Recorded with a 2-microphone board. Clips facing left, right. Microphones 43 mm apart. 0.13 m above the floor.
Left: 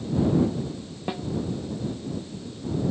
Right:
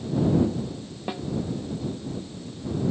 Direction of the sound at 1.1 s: 5° left (ahead or behind).